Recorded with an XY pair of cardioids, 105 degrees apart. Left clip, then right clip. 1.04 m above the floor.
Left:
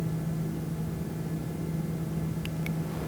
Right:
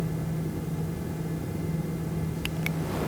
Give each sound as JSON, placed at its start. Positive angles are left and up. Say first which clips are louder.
{"t": 0.0, "sound": "a fan", "louder": "right 2 dB", "azimuth_deg": -25, "distance_m": 0.8}